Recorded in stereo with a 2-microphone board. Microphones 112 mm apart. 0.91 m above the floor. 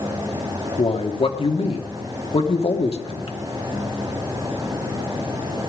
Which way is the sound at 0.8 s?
60° left (ahead or behind).